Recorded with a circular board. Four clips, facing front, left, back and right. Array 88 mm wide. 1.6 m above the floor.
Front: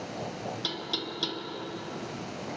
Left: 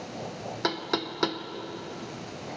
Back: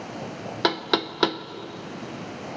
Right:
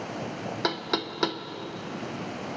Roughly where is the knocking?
Behind.